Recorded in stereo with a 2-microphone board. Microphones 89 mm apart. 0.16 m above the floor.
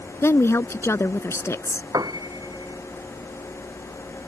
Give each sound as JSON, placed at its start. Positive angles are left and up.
{"t": 0.2, "sound": "a woman speaking", "side_deg": 30}
{"t": 1.9, "sound": "a piano", "side_deg": -45}